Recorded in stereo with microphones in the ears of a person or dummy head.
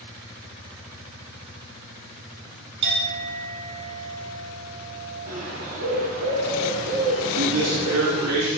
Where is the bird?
35° right (ahead or behind), 2.5 m.